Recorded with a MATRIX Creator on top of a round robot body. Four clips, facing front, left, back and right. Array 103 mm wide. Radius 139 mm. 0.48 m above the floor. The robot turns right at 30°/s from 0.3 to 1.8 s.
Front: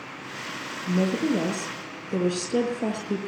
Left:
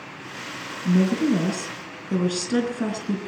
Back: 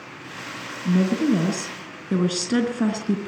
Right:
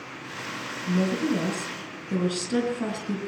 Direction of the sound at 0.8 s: 145° left.